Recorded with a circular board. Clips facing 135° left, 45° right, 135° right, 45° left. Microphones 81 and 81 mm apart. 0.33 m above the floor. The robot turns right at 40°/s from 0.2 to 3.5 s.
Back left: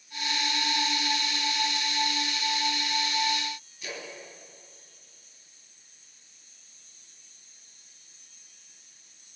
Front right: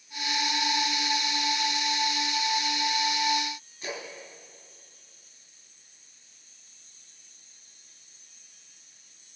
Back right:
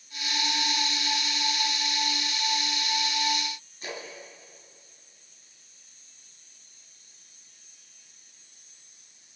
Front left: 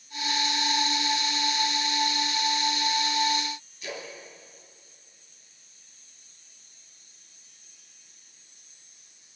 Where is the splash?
95° right, 3 m.